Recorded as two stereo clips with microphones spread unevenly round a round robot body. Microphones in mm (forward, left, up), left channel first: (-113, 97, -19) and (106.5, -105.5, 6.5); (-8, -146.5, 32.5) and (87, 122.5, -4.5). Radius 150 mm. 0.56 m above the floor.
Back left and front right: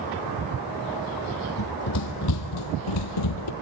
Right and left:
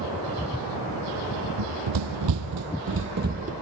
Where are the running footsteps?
90° left, 1.4 m; by 3.5 s 140° left, 1.2 m.